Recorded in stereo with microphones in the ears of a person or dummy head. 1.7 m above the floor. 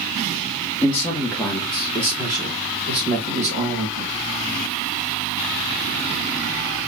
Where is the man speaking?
25° left (ahead or behind), 1.0 m; by 4.2 s 45° right (ahead or behind), 1.8 m.